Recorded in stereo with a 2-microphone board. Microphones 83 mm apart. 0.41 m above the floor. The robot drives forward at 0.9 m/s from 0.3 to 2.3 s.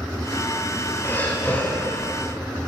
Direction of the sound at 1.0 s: 25° left (ahead or behind).